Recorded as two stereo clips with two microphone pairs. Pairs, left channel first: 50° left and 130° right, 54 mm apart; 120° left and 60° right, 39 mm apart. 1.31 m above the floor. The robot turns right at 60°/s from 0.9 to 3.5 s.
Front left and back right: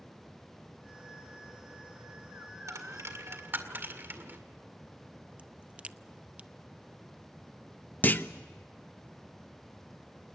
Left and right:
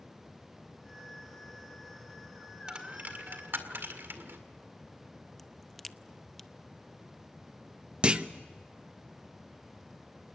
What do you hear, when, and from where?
2.7 s a dropped coin: 130° right, 2.0 m; by 4.4 s 80° right, 2.0 m
5.4 s a crack: 160° right, 0.5 m
8.0 s a clunk: straight ahead, 0.8 m